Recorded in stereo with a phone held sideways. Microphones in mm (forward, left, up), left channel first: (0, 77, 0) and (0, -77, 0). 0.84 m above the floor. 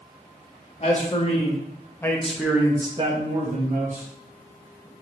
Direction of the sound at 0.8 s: 45° left (ahead or behind).